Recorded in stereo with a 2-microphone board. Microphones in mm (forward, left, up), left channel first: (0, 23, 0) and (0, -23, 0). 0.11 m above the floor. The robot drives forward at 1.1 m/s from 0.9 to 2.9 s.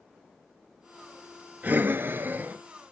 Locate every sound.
1.6 s breathing: 35° right (ahead or behind), 0.7 m; by 2.6 s 30° right (ahead or behind), 0.8 m